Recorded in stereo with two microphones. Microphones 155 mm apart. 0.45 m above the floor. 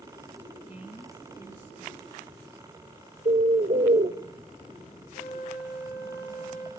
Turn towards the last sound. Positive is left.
turn(degrees=50)  # may be behind; listen again after turning